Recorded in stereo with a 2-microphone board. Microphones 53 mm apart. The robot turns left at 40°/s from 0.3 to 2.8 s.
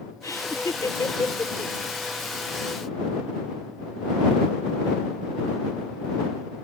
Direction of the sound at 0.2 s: 70° left (ahead or behind).